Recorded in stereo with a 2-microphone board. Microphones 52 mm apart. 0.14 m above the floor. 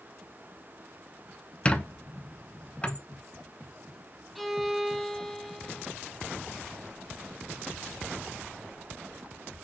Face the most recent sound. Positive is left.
turn(degrees=5)  # may be behind; listen again after turning